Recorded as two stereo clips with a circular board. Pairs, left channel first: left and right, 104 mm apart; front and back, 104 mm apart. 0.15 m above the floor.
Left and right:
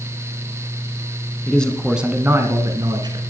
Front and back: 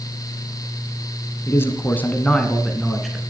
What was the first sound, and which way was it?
A man speaking, 30° left.